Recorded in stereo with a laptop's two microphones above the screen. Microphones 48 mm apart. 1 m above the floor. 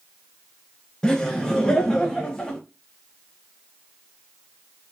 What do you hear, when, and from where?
1.0 s laughter: 15° left (ahead or behind), 1.0 m